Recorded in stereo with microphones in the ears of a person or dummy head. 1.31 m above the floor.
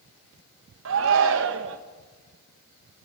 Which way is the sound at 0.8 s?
75° right (ahead or behind).